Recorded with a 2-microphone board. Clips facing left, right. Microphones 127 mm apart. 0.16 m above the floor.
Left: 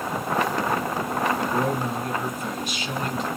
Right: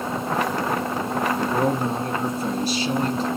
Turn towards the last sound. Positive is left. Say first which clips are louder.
# right 3 dB
turn(degrees=-35)  # may be behind; listen again after turning